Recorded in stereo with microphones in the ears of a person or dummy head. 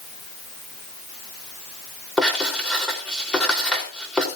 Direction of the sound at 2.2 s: 5° left (ahead or behind).